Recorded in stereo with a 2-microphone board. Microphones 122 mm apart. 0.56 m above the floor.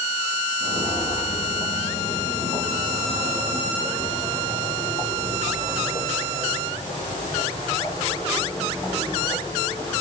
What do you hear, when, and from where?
0.6 s footsteps: 65° left (ahead or behind), 10 m; by 10.0 s 35° left (ahead or behind), 14.5 m